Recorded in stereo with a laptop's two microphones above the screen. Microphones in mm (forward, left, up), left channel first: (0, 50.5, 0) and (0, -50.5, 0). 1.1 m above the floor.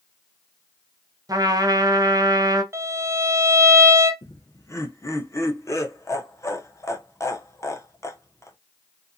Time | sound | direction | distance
1.3 | a trumpet | 35° right (ahead or behind) | 0.5 m
2.7 | a violin | 25° right (ahead or behind) | 0.5 m
4.2 | laughter | 30° left (ahead or behind) | 0.7 m